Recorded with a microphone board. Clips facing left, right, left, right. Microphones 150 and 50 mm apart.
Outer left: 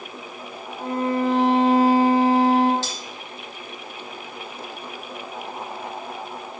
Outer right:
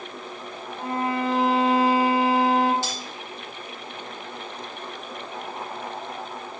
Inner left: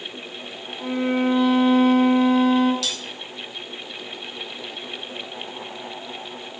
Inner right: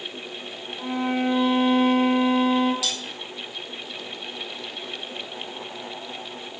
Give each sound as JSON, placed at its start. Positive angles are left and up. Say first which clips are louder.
{"t": 0.8, "sound": "a violin", "louder": "outer left 3 dB, inner left 3 dB", "side_deg": -15, "distance_m": 1.5}
{"t": 2.8, "sound": "cutlery clinking", "louder": "outer right 1 dB, even", "side_deg": -10, "distance_m": 2.0}